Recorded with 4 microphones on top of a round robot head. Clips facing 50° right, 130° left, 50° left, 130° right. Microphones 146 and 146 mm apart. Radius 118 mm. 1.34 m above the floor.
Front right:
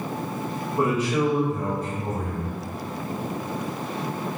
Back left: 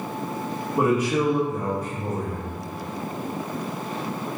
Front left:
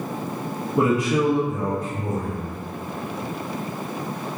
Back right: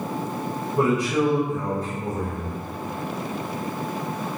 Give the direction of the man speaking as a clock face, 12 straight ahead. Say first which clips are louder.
Back left 2 dB, front left 1 dB; 10 o'clock.